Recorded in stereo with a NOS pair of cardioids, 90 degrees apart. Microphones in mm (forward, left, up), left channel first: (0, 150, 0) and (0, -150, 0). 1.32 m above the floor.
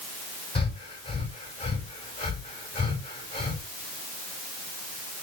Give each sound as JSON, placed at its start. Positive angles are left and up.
{"t": 0.6, "sound": "breathing", "azimuth_deg": 15, "distance_m": 5.0}